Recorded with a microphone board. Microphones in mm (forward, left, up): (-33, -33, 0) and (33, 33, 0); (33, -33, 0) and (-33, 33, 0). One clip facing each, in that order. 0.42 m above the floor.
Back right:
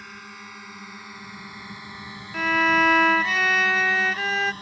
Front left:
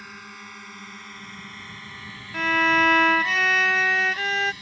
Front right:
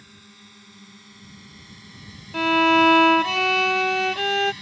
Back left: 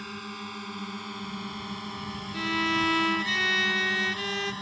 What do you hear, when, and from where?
0.0 s a drone: 135° left; by 4.6 s straight behind
2.3 s a violin: 45° right